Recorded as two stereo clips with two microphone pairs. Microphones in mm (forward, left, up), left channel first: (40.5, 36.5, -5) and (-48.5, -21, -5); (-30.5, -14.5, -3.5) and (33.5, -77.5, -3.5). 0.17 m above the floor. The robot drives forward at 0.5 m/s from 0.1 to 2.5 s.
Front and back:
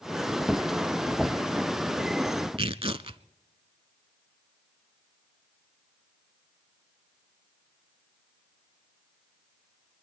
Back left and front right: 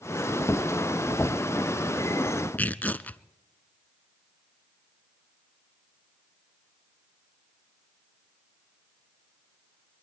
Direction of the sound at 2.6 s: 150° right.